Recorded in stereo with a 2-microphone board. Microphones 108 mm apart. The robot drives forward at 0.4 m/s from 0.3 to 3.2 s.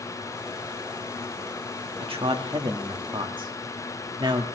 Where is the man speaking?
60° right (ahead or behind), 1.7 m; by 4.5 s 50° right (ahead or behind), 1.9 m.